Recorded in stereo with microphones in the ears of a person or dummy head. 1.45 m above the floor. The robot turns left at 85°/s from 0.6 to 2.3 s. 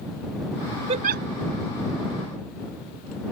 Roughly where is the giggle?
Right.